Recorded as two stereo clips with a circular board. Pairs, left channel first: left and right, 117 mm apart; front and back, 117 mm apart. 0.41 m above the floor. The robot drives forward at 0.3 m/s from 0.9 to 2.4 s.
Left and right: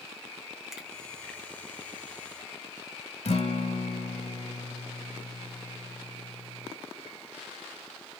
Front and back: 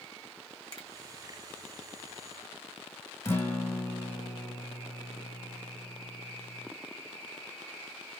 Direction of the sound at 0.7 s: 5° right.